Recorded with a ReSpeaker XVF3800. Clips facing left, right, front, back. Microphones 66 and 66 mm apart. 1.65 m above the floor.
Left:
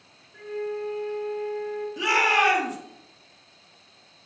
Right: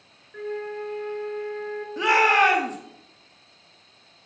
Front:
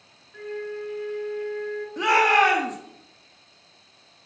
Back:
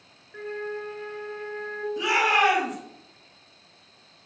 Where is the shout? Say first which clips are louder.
Right 3 dB, front 4 dB; 40° right, 0.8 m.